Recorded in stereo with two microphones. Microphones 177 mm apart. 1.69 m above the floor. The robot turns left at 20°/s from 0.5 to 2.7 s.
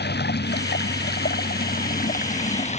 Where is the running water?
90° left; by 2.8 s 45° left.